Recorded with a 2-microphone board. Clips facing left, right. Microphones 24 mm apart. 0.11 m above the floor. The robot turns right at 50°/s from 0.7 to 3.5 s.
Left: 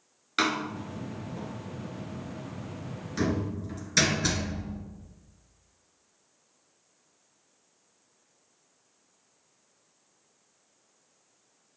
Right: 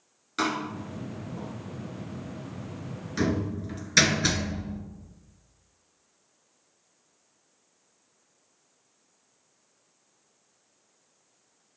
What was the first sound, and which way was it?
A door slam, 40° left (ahead or behind).